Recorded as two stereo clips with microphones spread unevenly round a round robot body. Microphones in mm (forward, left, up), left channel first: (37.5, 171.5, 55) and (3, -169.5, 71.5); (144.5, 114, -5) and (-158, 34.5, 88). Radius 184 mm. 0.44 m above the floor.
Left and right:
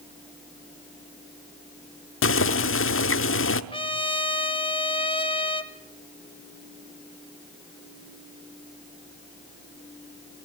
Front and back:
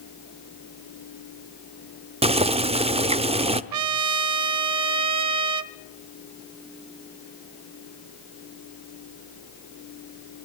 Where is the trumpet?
160° left, 0.6 m.